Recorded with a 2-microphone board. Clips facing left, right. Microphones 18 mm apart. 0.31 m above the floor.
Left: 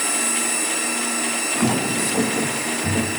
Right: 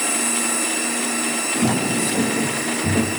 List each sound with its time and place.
1.6 s footsteps: 70° left (ahead or behind), 1.5 m; by 3.1 s 5° right (ahead or behind), 1.6 m